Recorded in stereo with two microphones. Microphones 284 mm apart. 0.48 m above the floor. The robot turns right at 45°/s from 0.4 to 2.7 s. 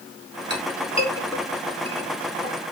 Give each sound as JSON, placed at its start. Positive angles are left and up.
{"t": 0.5, "sound": "a clink", "side_deg": 40, "distance_m": 3.5}